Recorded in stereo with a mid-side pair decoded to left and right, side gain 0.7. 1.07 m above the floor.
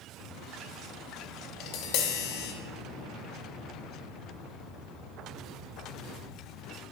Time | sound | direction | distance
1.6 | tapping | 65° left | 1.2 m